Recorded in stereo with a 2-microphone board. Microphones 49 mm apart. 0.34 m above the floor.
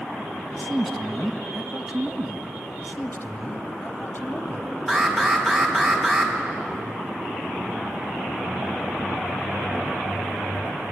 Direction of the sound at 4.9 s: 5° left (ahead or behind).